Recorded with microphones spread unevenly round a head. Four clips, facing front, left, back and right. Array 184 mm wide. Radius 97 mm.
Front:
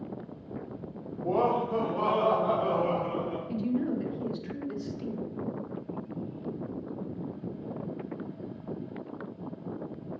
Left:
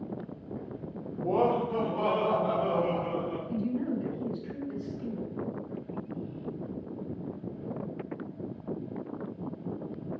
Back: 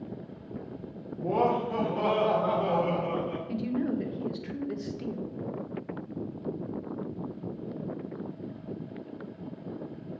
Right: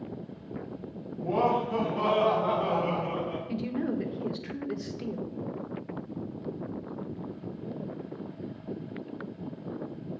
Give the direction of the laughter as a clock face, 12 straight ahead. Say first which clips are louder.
Even, even; 7 o'clock.